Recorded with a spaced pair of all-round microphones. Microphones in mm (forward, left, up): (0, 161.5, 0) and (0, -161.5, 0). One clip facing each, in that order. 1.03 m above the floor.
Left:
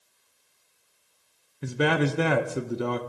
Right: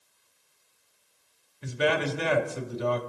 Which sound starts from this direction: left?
A man speaking, at 1.6 s.